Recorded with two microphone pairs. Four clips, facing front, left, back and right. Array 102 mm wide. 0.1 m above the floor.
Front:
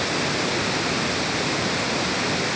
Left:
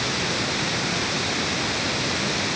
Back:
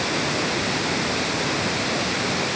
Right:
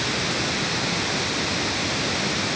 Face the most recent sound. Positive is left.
No sound to turn to.